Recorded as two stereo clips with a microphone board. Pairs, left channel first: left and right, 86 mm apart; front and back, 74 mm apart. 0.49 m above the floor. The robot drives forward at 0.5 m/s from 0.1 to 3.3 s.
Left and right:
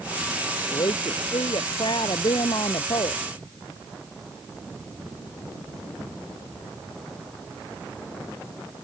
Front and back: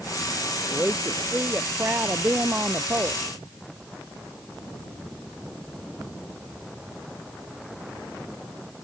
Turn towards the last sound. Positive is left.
turn(degrees=120)